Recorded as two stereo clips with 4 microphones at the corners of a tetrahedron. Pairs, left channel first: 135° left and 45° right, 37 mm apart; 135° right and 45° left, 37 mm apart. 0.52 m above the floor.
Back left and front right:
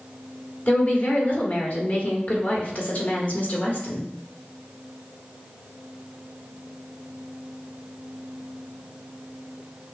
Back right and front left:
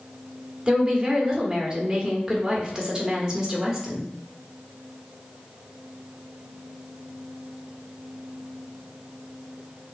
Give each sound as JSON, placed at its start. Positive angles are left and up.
{"t": 0.7, "sound": "a woman speaking", "azimuth_deg": 105, "distance_m": 1.3}